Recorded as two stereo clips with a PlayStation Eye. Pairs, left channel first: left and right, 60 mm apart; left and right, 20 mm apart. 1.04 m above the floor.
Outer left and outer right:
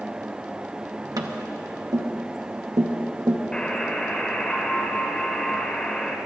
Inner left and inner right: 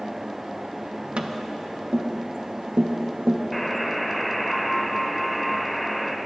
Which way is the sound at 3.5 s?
15° left (ahead or behind).